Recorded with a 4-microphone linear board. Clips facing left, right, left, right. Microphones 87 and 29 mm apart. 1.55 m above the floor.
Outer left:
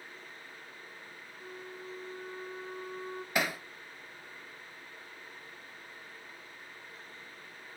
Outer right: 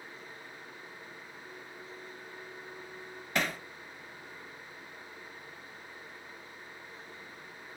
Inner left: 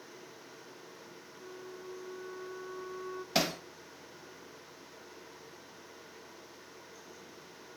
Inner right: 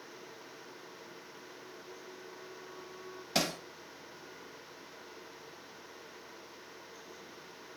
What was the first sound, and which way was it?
A flute, 65° left (ahead or behind).